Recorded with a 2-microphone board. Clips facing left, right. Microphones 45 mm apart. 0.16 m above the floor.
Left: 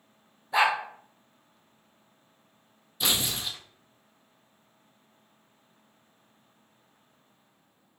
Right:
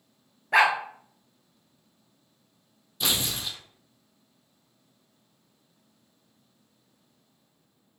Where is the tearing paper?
5° left (ahead or behind), 0.7 m.